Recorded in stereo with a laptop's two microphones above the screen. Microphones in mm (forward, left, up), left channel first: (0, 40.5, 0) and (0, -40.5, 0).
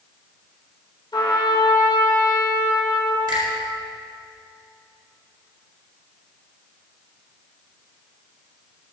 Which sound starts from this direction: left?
A trumpet, at 1.1 s.